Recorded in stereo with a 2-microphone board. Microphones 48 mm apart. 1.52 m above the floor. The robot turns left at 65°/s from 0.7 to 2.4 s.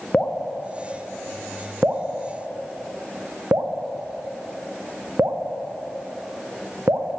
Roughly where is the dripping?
Left.